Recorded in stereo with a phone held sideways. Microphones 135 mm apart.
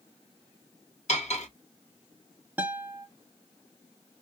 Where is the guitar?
10° right (ahead or behind), 1.0 m.